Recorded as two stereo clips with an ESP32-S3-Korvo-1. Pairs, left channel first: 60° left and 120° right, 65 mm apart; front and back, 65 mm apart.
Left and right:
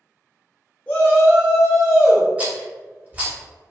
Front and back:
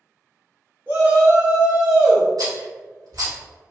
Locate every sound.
0.9 s a shout: 130° left, 1.5 m; by 2.3 s 95° left, 2 m
2.4 s a rattle: 175° left, 1.9 m